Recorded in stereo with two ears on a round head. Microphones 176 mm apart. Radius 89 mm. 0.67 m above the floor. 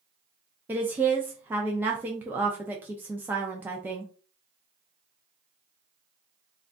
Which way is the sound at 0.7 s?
10° right (ahead or behind).